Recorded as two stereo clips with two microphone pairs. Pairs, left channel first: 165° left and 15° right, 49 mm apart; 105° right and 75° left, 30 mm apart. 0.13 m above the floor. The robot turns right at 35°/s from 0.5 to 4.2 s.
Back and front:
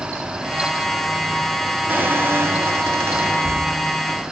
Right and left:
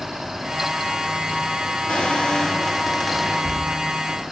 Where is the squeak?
60° right, 1.2 m; by 3.9 s 10° left, 1.2 m.